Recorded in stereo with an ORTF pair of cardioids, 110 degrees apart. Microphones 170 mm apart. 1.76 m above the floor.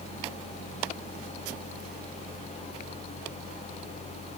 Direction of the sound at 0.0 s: 40° left.